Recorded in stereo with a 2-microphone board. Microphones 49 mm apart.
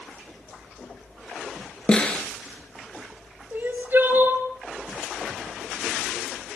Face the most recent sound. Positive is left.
turn(degrees=-45)  # may be behind; listen again after turning